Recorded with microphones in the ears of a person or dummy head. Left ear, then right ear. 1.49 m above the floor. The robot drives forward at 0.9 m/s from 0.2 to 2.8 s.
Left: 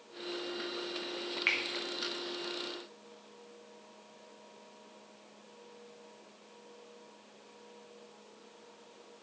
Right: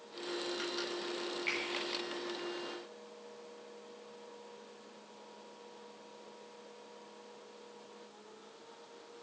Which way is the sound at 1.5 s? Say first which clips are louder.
Left 6 dB; 35° left (ahead or behind).